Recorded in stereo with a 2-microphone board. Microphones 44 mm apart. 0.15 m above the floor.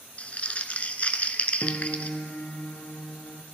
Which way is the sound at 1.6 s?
45° left (ahead or behind).